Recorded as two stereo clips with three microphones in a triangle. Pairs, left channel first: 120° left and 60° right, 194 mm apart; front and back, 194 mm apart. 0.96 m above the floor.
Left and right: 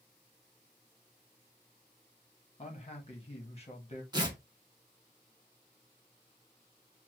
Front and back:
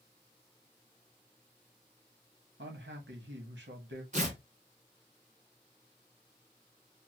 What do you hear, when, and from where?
2.6 s a man speaking: 175° left, 1.2 m
4.1 s tearing paper: 130° right, 1.2 m